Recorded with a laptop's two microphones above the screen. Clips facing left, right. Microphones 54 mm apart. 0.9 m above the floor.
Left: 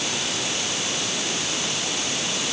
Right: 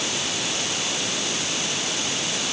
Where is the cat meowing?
I don't hear a cat meowing.